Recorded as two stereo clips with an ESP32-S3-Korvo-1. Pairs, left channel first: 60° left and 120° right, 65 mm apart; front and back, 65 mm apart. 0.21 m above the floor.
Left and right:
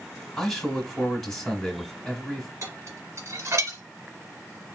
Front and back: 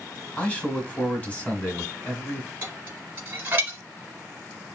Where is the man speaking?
10° right, 1.0 m.